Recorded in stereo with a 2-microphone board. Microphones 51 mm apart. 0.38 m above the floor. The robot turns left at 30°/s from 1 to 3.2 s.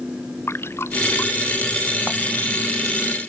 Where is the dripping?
55° left (ahead or behind); by 2.5 s 5° left (ahead or behind).